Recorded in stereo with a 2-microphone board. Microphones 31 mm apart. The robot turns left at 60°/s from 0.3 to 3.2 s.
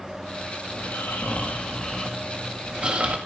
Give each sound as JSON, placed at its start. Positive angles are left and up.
{"t": 0.7, "sound": "snoring", "azimuth_deg": 95, "distance_m": 1.8}